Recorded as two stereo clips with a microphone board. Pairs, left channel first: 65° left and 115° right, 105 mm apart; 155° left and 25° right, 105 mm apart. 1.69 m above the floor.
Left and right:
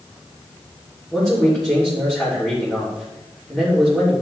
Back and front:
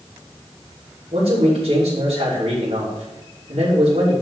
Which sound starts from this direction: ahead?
A man speaking, at 1.1 s.